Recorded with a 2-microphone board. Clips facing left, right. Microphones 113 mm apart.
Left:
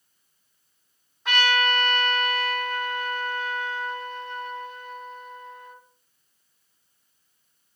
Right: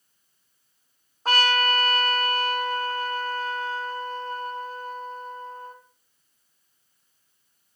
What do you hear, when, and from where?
1.2 s a trumpet: 40° right (ahead or behind), 1.9 m